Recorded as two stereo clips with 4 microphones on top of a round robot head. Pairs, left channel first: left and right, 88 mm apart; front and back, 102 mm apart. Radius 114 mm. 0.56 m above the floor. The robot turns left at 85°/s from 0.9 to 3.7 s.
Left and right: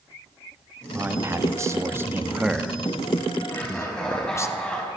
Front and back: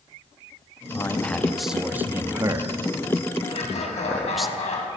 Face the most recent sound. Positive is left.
turn(degrees=10)